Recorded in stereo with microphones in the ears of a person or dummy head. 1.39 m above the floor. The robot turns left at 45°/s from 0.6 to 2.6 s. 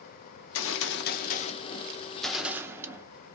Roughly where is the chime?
I don't hear a chime.